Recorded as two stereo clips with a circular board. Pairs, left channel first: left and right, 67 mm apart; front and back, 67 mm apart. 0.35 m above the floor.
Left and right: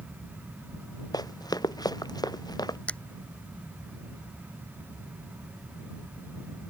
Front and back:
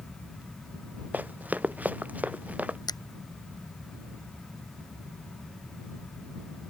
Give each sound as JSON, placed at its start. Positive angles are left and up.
{"t": 1.1, "sound": "running footsteps", "azimuth_deg": 115}
{"t": 2.9, "sound": "a finger snap", "azimuth_deg": 15}